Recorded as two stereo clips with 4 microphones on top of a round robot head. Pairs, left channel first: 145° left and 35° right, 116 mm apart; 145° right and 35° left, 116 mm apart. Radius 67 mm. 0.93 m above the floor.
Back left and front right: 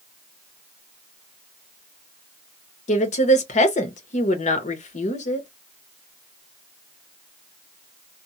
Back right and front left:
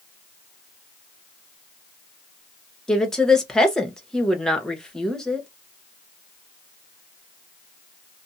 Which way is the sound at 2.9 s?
130° left.